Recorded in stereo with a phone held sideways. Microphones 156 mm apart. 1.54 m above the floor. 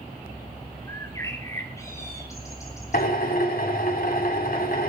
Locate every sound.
0.9 s a bird: 20° left (ahead or behind), 5 m
2.9 s a drill: 70° left (ahead or behind), 3.5 m